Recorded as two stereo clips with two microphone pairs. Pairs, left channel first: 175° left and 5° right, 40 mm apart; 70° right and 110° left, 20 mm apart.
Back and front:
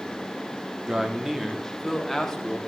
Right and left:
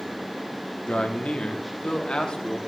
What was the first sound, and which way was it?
A man speaking, 70° right.